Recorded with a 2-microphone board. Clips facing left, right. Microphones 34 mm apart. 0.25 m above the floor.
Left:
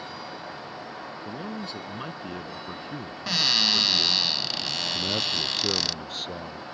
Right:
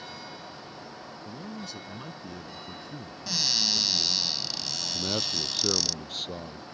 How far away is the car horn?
I don't hear a car horn.